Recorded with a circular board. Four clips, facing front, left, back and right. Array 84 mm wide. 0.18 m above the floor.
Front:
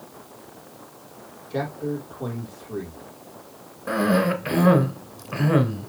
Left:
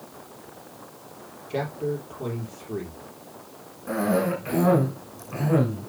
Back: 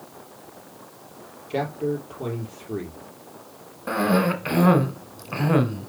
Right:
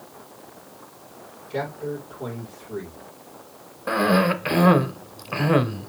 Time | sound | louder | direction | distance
1.5 | a man speaking | left 1 dB, back 2 dB | 160° left | 4.5 m
3.9 | a cough | right 4 dB, even | 110° right | 1.8 m